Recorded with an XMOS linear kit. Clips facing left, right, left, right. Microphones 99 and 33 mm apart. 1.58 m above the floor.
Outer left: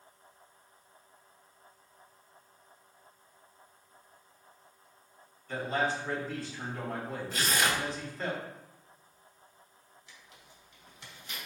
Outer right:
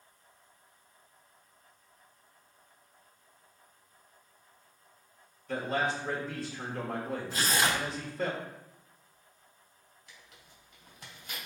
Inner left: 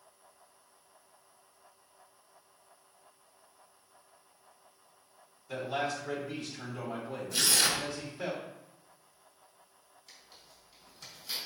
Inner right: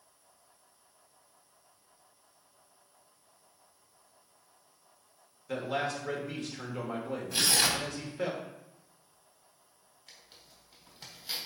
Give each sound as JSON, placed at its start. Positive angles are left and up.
{"t": 5.5, "sound": "a man speaking", "side_deg": -65, "distance_m": 2.5}
{"t": 7.3, "sound": "tearing paper", "side_deg": -30, "distance_m": 1.6}
{"t": 10.1, "sound": "tearing paper", "side_deg": -45, "distance_m": 3.5}